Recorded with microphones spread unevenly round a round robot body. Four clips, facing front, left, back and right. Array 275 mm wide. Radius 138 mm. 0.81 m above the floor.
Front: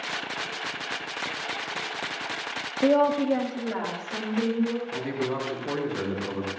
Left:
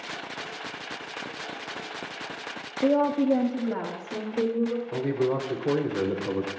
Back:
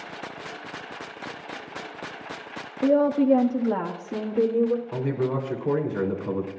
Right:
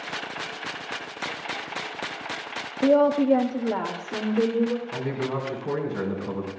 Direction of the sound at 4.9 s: 130° left.